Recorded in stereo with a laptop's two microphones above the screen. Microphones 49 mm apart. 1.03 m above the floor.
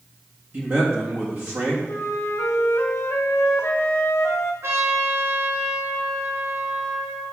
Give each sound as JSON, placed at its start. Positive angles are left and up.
{"t": 0.5, "sound": "a man speaking", "side_deg": -50, "distance_m": 1.6}
{"t": 1.9, "sound": "a flute", "side_deg": 75, "distance_m": 1.2}
{"t": 4.6, "sound": "a trumpet", "side_deg": -75, "distance_m": 4.0}